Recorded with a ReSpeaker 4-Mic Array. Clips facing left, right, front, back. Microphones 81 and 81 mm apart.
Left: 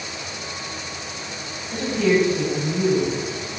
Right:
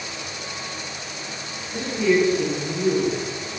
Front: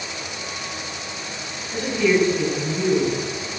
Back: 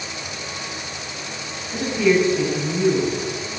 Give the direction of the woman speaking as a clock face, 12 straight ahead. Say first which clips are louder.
Left 1 dB, back 1 dB; 9 o'clock.